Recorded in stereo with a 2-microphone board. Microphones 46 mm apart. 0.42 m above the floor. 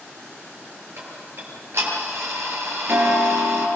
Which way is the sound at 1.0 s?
60° right (ahead or behind).